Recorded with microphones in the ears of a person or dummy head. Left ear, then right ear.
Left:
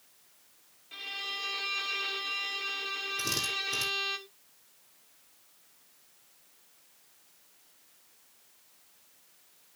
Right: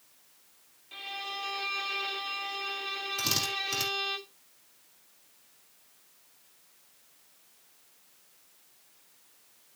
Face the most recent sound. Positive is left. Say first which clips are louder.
# right 3 dB
turn(degrees=-65)  # may be behind; listen again after turning